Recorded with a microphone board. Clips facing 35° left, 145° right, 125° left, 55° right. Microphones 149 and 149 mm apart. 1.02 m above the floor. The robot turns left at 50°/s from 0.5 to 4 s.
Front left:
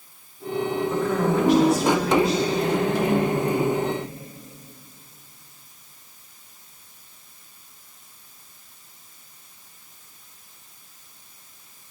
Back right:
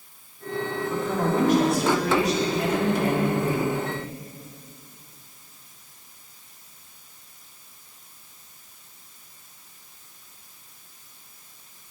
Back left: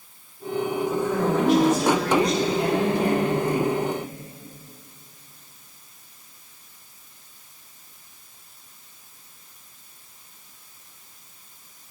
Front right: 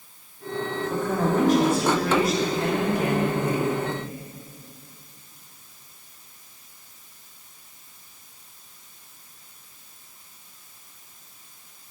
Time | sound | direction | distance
0.9 | a woman speaking | 75° right | 2.5 m